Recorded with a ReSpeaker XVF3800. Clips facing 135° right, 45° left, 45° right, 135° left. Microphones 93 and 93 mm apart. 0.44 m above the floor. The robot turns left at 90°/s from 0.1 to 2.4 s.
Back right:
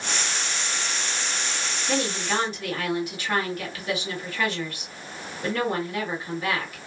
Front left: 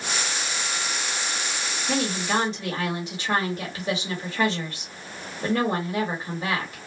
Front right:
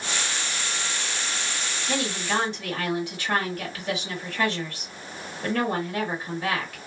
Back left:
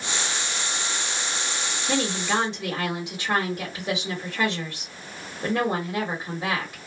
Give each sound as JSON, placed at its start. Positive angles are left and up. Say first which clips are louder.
{"t": 1.9, "sound": "a woman speaking", "louder": "front left 1 dB, back left 2 dB", "azimuth_deg": 130, "distance_m": 1.5}